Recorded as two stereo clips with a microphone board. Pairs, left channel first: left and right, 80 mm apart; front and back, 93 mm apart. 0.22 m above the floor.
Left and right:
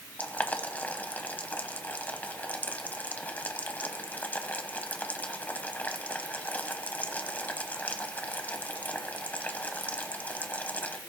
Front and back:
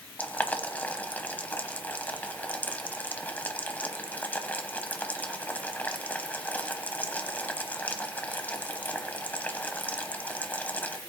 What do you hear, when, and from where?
0.2 s boiling: 50° left, 1.0 m